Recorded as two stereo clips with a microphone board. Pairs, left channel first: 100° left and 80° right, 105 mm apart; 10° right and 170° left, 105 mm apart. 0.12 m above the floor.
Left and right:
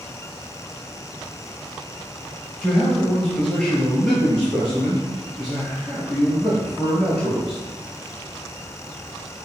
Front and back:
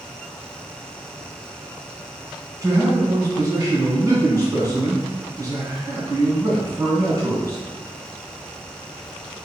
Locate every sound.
2.6 s a man speaking: 170° left, 1.4 m